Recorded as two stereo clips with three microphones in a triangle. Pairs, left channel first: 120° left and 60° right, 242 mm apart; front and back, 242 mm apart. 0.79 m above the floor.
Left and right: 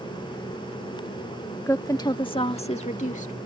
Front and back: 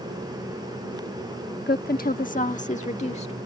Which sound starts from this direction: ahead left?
A woman speaking, at 1.7 s.